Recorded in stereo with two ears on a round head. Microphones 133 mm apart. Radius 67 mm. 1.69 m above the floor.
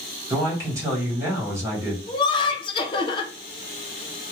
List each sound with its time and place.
0.3 s a man speaking: 20° right (ahead or behind), 1.4 m
2.1 s laughter: 35° left (ahead or behind), 0.7 m